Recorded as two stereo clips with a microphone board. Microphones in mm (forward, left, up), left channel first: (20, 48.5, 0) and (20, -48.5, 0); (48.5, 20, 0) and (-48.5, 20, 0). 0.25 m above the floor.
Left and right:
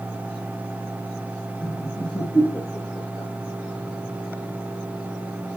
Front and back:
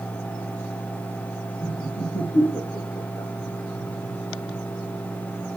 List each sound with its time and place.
1.6 s laughter: 25° left, 7 m; by 3.3 s 35° left, 5.5 m